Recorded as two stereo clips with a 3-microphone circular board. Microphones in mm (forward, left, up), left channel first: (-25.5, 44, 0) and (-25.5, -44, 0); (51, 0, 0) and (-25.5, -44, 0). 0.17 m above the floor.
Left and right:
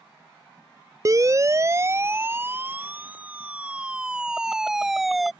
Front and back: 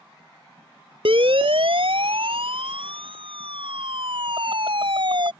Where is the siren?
140° right; by 5.3 s straight behind.